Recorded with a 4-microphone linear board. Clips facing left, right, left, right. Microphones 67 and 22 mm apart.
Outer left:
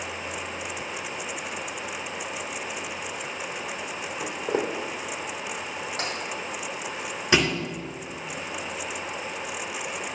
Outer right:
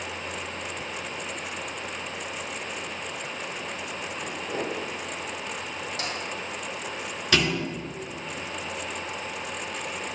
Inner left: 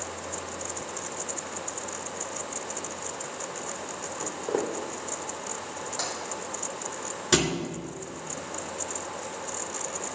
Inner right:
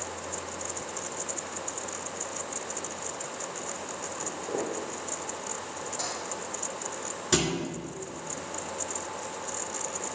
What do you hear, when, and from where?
4.2 s footsteps: 55° left (ahead or behind), 3 m
6.0 s tapping: 40° left (ahead or behind), 4 m
7.3 s a thud: 25° left (ahead or behind), 2.5 m